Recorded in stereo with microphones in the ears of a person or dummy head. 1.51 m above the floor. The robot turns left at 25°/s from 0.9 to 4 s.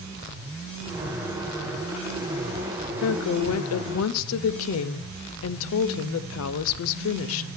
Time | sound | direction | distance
3.0 | a woman speaking | 70° left (ahead or behind) | 0.6 m